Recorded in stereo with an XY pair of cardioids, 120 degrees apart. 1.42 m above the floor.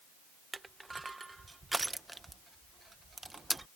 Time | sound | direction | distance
0.5 | crushing | 15° right | ?